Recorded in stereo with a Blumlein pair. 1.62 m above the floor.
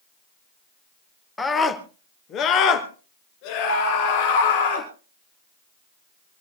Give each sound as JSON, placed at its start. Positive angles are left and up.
{"t": 1.4, "sound": "a scream", "azimuth_deg": 10, "distance_m": 1.8}